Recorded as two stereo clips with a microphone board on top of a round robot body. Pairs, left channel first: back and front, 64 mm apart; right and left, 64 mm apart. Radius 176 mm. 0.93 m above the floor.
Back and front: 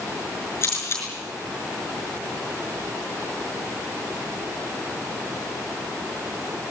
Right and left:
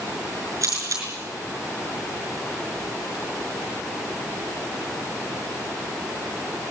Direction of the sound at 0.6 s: 130° left.